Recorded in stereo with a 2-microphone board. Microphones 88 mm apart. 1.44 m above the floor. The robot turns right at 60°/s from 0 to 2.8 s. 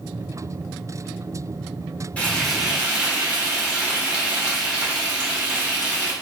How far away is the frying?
About 1.6 m.